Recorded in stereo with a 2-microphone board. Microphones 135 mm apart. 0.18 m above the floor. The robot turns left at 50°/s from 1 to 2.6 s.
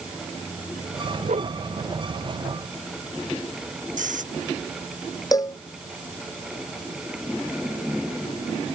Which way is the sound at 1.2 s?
70° right (ahead or behind).